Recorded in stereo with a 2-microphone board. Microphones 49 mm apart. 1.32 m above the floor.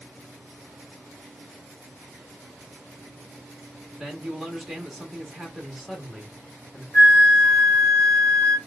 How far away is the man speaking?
About 1.5 m.